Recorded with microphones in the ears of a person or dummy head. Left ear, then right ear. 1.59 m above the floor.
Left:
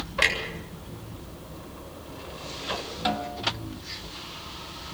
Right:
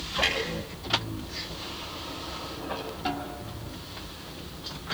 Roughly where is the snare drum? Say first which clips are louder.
Left 5 dB; left.